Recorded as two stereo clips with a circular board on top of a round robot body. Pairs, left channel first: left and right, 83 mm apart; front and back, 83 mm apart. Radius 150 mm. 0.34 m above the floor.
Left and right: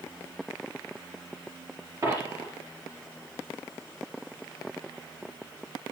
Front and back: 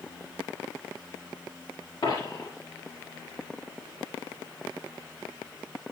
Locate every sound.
2.0 s a dropped coin: 35° right, 5 m